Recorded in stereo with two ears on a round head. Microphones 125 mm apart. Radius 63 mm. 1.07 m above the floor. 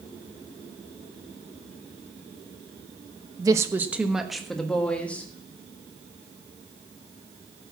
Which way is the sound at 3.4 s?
25° right (ahead or behind).